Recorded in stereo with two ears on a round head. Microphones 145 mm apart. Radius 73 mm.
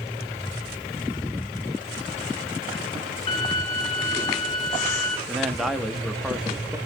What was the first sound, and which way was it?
A violin, 35° left (ahead or behind).